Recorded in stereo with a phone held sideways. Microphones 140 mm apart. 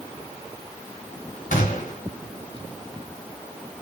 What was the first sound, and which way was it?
A gunshot, 75° left (ahead or behind).